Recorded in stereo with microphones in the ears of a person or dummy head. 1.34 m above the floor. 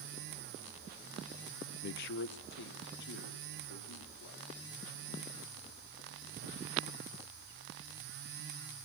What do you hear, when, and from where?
1.8 s a man speaking: 55° left (ahead or behind), 0.5 m; by 4.5 s 70° left (ahead or behind), 3.5 m